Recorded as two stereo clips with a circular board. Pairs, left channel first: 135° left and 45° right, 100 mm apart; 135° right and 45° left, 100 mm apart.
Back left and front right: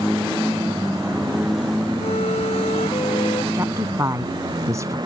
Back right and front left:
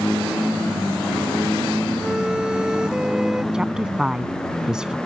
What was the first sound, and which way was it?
A violin, 125° left.